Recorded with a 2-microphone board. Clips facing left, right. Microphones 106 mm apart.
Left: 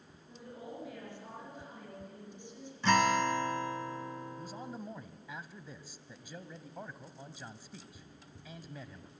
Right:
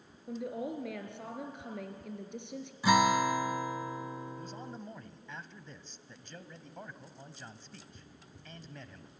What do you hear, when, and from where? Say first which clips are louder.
0.3 s a woman speaking: right 10 dB; 70° right (ahead or behind), 4 m
2.8 s a guitar: right 2 dB; 10° right (ahead or behind), 0.8 m
4.4 s a man speaking: even; 5° left (ahead or behind), 1.0 m